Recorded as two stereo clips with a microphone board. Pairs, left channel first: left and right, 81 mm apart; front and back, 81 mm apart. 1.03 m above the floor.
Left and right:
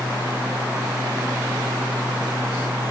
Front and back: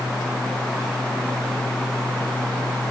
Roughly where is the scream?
No scream in this recording.